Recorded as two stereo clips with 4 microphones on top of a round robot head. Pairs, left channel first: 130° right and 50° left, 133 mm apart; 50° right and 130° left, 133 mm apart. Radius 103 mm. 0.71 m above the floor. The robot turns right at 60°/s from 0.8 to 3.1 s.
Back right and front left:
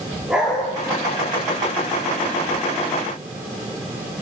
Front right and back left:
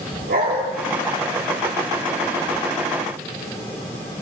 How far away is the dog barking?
About 8 m.